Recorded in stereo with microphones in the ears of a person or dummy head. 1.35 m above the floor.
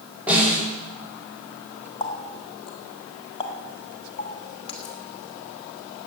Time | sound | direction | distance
0.3 | a snare drum | 10° right (ahead or behind) | 5.5 m
2.0 | a running tap | 25° left (ahead or behind) | 1.5 m